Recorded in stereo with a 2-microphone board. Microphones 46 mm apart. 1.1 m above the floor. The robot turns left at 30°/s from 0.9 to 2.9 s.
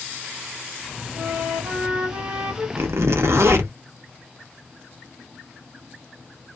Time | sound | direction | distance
1.1 | a flute | 110° right | 1.8 m
2.8 | a zipper | 70° right (ahead or behind) | 0.7 m